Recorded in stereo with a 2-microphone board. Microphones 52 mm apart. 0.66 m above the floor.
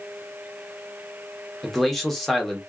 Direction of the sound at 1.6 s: 5° left (ahead or behind).